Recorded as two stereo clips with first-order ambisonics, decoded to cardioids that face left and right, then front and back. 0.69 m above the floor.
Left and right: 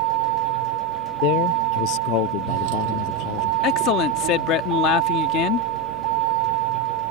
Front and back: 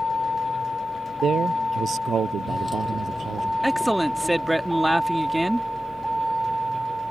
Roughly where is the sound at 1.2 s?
Behind left.